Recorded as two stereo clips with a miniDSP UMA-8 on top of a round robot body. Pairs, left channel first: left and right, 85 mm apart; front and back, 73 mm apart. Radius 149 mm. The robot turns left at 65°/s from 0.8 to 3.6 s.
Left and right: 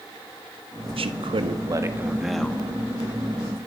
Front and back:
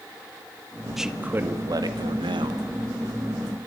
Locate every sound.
1.0 s a man speaking: 90° right, 1.8 m; by 2.6 s 160° left, 1.8 m